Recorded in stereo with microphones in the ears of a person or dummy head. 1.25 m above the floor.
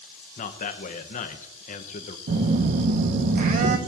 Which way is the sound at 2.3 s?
45° right (ahead or behind).